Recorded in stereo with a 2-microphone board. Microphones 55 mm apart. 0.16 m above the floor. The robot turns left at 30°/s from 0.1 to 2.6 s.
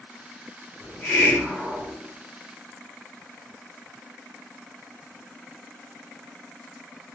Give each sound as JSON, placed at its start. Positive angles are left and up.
{"t": 0.8, "sound": "a hiss", "side_deg": 25, "distance_m": 1.8}